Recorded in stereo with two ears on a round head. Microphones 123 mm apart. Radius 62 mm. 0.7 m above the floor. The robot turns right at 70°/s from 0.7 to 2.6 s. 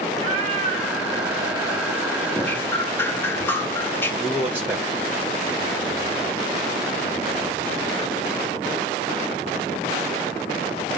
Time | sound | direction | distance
0.1 | a cat meowing | 130° right | 2.5 m
2.3 | dripping | 5° left (ahead or behind) | 1.2 m
4.2 | a man speaking | 15° right (ahead or behind) | 3 m